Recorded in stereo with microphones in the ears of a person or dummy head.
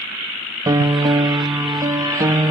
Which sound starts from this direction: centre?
A piano, at 0.7 s.